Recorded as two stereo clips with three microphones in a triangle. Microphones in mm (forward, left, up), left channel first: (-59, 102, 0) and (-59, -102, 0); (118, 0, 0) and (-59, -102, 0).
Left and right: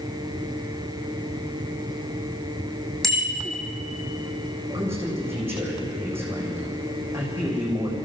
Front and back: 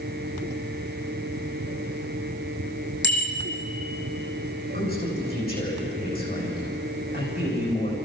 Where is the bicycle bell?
Straight ahead, 4.5 m.